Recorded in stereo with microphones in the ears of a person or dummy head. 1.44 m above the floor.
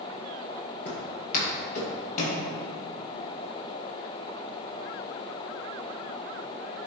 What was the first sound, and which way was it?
Footsteps, 40° left (ahead or behind).